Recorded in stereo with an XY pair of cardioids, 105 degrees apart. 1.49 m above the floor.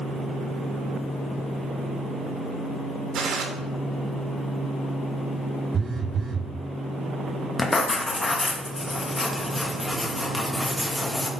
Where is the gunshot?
65° right, 3 m.